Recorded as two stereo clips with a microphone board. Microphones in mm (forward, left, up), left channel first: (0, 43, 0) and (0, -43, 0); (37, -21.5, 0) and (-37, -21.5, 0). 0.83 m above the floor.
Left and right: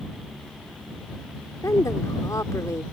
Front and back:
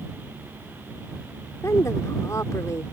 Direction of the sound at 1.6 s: 40° left.